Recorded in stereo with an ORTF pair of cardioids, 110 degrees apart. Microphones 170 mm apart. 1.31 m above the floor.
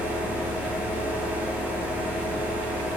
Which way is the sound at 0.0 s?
10° right.